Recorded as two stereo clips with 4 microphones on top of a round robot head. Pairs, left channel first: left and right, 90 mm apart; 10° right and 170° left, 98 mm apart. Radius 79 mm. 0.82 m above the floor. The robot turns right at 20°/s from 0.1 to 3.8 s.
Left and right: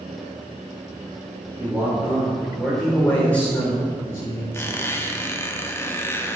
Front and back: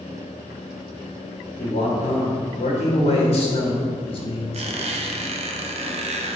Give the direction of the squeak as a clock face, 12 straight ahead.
7 o'clock.